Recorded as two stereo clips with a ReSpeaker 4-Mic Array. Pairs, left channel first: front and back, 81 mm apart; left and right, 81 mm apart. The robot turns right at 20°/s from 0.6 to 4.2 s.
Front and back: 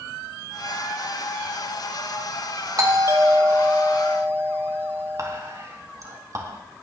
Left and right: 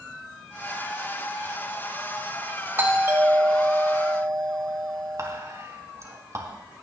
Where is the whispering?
135° right, 3 m.